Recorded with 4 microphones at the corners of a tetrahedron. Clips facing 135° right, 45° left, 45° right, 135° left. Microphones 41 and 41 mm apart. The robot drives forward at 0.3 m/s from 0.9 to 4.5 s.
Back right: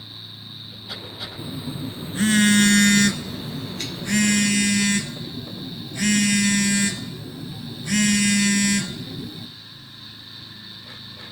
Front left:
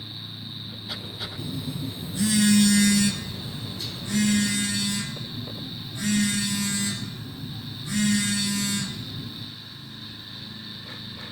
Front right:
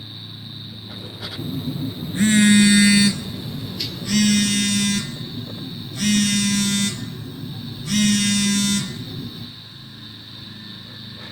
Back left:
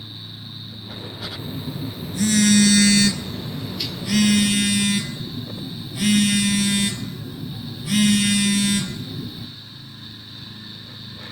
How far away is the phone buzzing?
About 0.5 m.